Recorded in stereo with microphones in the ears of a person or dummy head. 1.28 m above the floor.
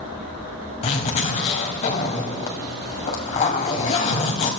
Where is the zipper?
45° left (ahead or behind), 2.0 m.